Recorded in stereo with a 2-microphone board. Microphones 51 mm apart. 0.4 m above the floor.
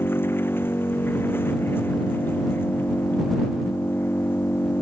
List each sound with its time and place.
0.0 s an engine running: 50° left (ahead or behind)